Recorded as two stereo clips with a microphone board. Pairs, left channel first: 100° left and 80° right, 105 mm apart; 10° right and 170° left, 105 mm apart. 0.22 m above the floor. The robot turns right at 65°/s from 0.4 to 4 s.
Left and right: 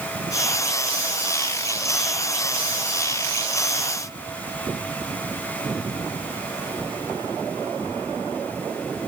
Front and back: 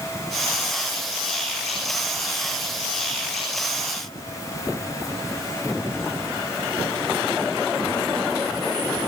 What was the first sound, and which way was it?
Only background noise.